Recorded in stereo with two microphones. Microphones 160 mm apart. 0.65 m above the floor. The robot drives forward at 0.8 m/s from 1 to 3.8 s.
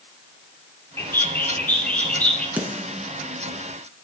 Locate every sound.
1.0 s a bird: 15° left (ahead or behind), 1.2 m; by 2.5 s 5° left (ahead or behind), 2.5 m
2.6 s a snare drum: 10° right (ahead or behind), 2 m